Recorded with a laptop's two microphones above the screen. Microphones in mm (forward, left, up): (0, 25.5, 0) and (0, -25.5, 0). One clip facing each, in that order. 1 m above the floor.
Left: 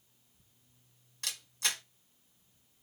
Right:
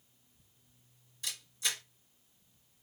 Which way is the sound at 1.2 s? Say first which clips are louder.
Left 2 dB; 60° left (ahead or behind).